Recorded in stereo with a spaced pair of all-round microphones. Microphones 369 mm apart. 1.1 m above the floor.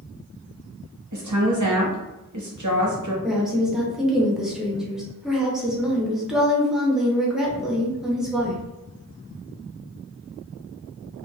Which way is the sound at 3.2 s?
Centre (ahead or behind).